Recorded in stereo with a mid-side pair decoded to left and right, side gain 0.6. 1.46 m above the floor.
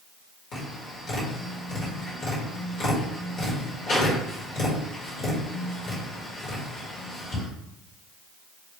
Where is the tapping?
60° left, 1.7 m.